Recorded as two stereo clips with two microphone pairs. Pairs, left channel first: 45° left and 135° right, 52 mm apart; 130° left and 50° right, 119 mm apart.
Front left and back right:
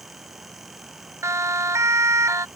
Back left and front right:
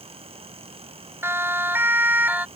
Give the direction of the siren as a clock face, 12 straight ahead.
4 o'clock.